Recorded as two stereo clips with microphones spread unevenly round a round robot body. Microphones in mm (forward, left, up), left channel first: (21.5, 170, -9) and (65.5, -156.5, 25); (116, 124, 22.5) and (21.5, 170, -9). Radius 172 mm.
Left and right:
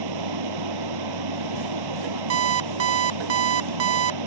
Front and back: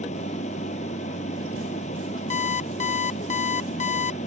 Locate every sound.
0.0 s running water: 70° right
2.3 s an alarm clock: 30° right